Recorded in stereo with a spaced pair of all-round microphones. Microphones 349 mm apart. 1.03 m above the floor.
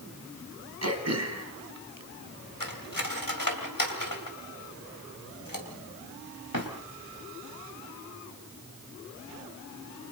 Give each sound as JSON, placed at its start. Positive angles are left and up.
{"t": 0.8, "sound": "throat clearing", "side_deg": -50, "distance_m": 2.5}
{"t": 2.6, "sound": "cutlery clinking", "side_deg": 70, "distance_m": 3.0}